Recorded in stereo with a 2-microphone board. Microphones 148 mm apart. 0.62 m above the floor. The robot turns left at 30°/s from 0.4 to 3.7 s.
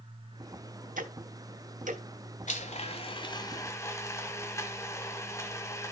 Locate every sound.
1.0 s ticking: 65° right (ahead or behind), 1.2 m; by 2.0 s 60° right (ahead or behind), 1.2 m
2.5 s a blender: 55° left, 1.3 m; by 5.9 s 20° left, 1.3 m